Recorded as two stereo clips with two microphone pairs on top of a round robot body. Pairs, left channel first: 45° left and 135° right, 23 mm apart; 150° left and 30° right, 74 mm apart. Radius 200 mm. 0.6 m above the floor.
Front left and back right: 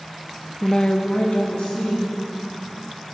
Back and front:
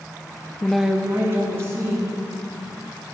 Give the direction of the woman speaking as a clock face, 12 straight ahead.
9 o'clock.